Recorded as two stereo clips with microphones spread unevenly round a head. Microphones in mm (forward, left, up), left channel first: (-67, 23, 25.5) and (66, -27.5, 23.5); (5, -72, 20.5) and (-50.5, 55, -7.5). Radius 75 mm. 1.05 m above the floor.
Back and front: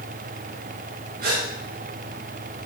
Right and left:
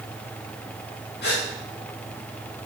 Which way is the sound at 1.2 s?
50° right.